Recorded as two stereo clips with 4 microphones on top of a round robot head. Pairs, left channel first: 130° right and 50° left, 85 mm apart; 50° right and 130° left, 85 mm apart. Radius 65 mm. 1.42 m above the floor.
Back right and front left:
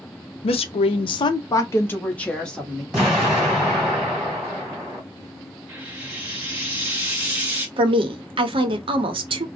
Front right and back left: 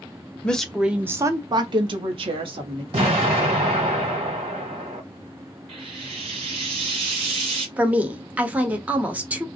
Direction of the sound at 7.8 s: 60° left.